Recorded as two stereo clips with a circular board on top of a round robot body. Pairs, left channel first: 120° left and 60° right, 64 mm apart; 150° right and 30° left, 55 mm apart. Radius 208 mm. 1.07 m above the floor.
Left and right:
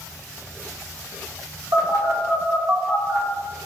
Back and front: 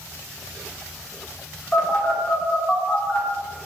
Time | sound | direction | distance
1.7 | a phone buzzing | 80° right | 1.2 m